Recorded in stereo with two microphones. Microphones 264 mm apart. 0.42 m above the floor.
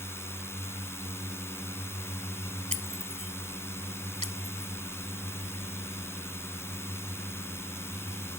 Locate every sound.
0.0 s a drone: 10° left (ahead or behind)
2.7 s breaking glass: 25° right (ahead or behind)